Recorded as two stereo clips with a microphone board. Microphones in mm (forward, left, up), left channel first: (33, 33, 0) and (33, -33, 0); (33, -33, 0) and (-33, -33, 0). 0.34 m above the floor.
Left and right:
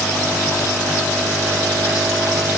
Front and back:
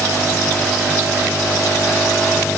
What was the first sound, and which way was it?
Only background noise.